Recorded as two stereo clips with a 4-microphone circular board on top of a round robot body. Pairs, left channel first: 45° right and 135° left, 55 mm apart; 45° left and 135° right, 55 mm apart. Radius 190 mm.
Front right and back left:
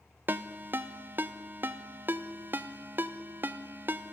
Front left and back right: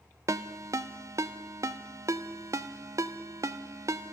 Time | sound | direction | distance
0.3 | a ringtone | 170° right | 0.6 m